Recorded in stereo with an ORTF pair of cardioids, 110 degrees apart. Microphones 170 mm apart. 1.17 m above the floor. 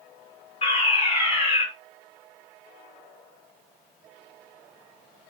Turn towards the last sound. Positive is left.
turn(degrees=35)